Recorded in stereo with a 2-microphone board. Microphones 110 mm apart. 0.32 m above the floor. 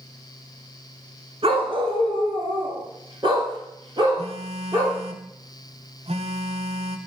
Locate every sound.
1.4 s a dog barking: 55° right (ahead or behind), 1.7 m; by 5.0 s 40° right (ahead or behind), 4.5 m
4.2 s a phone buzzing: 65° right (ahead or behind), 0.9 m